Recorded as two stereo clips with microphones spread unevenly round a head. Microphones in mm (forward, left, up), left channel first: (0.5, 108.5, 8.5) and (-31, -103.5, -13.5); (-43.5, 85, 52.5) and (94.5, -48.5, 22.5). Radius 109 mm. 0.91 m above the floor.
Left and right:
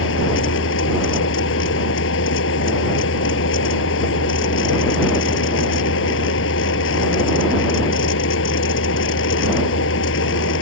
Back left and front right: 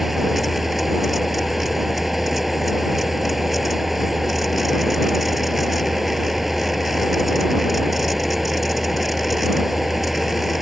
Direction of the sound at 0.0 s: 45° left.